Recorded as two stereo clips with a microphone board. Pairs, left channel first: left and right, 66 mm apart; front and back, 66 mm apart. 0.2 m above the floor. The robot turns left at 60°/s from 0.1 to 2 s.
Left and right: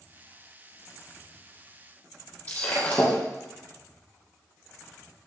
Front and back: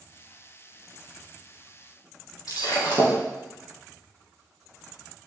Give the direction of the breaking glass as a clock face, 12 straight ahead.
11 o'clock.